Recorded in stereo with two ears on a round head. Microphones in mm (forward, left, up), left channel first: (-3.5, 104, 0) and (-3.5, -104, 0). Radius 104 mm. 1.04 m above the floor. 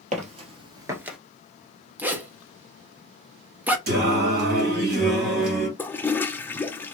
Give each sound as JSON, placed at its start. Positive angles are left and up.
{"t": 0.1, "sound": "footsteps", "side_deg": -30, "distance_m": 1.6}
{"t": 2.0, "sound": "a zipper", "side_deg": -5, "distance_m": 0.7}
{"t": 3.9, "sound": "singing", "side_deg": -45, "distance_m": 2.0}
{"t": 5.8, "sound": "a toilet flushing", "side_deg": 10, "distance_m": 0.6}